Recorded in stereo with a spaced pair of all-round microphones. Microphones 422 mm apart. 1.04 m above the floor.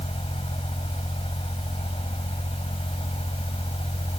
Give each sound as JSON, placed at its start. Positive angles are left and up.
{"t": 0.0, "sound": "a fan", "side_deg": 15}